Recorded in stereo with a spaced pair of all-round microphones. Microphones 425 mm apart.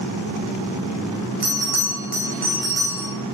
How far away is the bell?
About 4 m.